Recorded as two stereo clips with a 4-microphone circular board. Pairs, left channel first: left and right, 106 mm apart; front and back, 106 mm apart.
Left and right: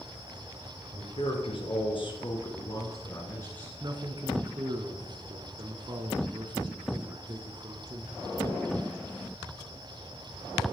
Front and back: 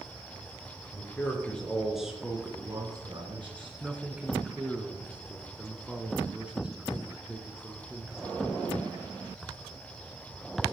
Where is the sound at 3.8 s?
100° right, 1.5 m.